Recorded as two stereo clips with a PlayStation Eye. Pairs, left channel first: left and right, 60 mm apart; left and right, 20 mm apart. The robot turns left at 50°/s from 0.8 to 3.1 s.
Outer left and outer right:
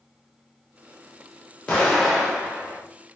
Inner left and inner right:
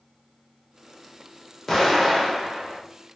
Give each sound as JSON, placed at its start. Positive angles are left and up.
{"t": 1.7, "sound": "an explosion", "azimuth_deg": 15, "distance_m": 1.1}